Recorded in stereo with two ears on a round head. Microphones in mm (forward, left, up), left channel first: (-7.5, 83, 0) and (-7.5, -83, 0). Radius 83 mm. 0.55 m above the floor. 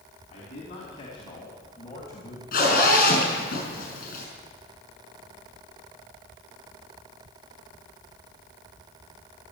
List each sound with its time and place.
0.3 s a man speaking: 35° left (ahead or behind), 4 m; by 2.4 s 15° left (ahead or behind), 3 m
2.5 s a zipper: 50° left (ahead or behind), 5.5 m